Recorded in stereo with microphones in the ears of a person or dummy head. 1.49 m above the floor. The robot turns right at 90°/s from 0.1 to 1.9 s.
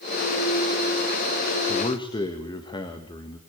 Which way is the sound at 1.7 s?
45° left (ahead or behind).